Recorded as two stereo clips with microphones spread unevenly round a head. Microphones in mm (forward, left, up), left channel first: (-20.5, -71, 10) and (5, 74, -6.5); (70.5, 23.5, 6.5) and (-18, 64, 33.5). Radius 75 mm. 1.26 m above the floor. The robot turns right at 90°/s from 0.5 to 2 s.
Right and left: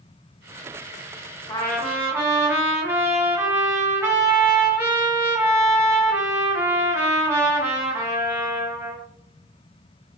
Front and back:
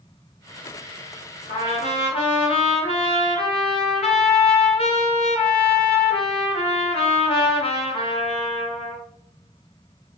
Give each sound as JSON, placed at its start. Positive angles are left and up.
{"t": 1.5, "sound": "a trumpet", "azimuth_deg": -40, "distance_m": 1.0}